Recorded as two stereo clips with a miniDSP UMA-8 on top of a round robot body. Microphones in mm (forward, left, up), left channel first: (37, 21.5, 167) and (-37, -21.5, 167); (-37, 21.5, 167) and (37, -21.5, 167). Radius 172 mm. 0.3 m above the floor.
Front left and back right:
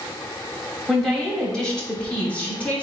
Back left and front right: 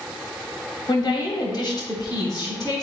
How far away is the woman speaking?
About 2 m.